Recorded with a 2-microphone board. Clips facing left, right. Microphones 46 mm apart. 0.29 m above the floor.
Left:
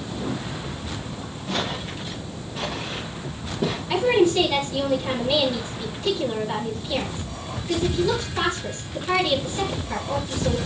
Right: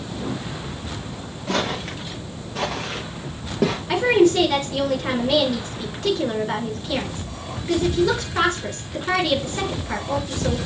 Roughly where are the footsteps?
Right.